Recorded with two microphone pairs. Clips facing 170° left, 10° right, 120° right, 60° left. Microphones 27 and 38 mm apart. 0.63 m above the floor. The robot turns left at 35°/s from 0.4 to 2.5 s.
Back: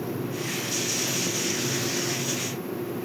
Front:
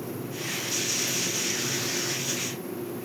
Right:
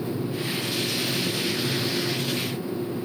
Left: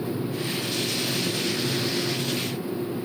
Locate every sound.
Only background noise.